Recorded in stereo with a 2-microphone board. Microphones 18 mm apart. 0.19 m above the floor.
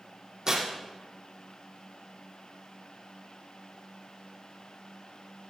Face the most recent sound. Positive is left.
turn(degrees=-35)  # may be behind; listen again after turning